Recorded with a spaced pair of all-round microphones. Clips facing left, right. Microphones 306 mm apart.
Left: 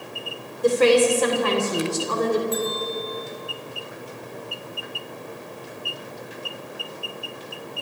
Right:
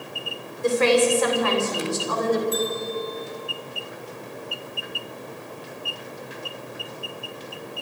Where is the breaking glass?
I don't hear breaking glass.